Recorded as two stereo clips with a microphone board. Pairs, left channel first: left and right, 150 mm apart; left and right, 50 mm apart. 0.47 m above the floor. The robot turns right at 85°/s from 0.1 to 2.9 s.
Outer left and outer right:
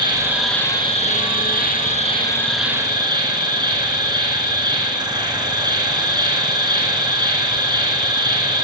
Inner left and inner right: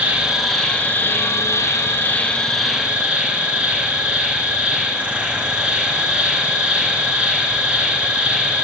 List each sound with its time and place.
0.0 s an insect: 30° right, 1.9 m; by 8.7 s 150° right, 1.9 m